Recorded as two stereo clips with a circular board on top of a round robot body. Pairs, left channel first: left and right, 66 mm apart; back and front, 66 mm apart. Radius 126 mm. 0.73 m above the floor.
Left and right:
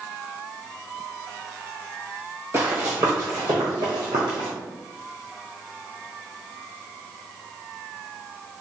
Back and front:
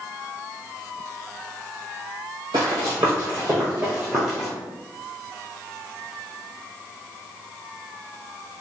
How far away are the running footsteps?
About 1.3 m.